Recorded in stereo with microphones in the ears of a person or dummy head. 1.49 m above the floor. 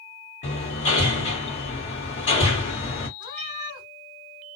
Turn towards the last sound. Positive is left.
turn(degrees=20)  # may be behind; listen again after turning